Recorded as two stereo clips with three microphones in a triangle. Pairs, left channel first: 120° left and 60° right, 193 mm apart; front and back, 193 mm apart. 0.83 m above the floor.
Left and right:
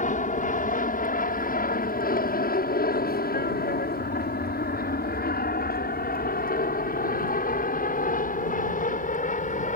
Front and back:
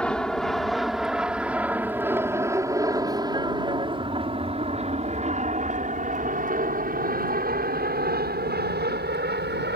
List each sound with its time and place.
0.0 s an aircraft: 85° left; by 9.8 s 165° left